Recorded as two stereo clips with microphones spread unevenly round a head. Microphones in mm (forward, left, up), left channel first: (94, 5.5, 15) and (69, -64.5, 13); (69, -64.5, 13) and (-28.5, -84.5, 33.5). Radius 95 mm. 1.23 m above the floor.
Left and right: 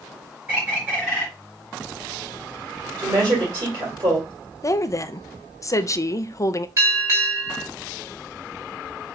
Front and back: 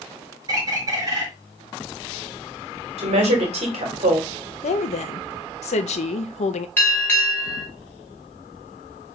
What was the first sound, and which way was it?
A bird, 175° left.